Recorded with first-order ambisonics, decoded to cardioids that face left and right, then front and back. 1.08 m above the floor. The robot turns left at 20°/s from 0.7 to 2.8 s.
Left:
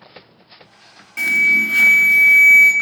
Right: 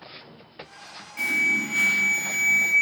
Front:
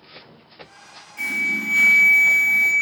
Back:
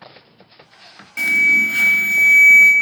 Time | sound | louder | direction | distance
1.2 | an alarm | left 8 dB, back 9 dB | 140° left | 0.6 m